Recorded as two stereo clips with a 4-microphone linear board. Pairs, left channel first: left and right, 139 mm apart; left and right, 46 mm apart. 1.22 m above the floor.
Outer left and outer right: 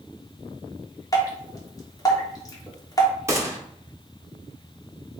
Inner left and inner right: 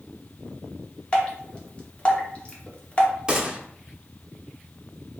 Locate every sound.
1.1 s dripping: 25° left (ahead or behind), 0.8 m
3.3 s a gunshot: 20° right (ahead or behind), 0.9 m